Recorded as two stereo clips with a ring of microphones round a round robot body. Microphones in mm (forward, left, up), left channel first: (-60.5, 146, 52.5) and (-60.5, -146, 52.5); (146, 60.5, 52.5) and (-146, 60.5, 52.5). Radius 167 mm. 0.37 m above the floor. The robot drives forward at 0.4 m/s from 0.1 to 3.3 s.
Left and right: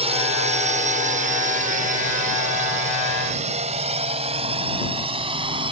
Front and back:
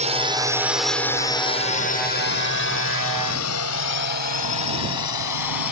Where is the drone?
135° right; by 5.7 s 15° right.